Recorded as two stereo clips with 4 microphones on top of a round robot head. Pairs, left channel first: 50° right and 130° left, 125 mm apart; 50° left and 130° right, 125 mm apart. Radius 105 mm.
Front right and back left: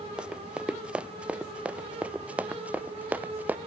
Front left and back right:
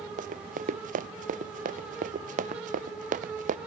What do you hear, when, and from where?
0.2 s running footsteps: 145° right; by 3.6 s 150° right